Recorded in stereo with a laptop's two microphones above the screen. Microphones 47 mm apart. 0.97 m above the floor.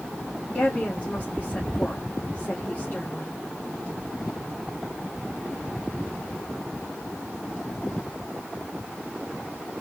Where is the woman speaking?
35° left (ahead or behind), 2 m.